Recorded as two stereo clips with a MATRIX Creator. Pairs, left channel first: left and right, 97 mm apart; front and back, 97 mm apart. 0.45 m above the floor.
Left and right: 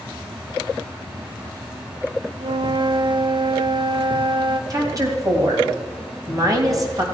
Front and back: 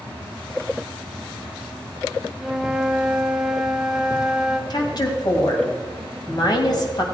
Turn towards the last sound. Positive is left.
turn(degrees=-40)